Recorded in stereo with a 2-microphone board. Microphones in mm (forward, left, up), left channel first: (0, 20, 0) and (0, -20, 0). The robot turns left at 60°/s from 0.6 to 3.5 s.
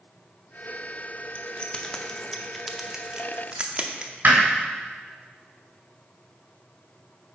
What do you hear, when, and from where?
1.4 s keys jangling: 30° left (ahead or behind), 0.7 m; by 4.1 s 25° right (ahead or behind), 0.7 m
4.2 s hammering: 50° right (ahead or behind), 2.5 m